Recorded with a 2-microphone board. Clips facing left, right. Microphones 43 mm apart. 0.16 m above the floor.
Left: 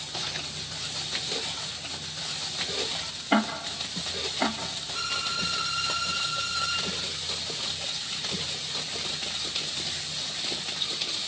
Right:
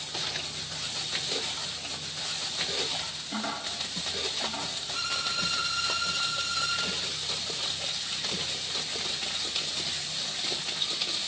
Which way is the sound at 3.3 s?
60° left (ahead or behind).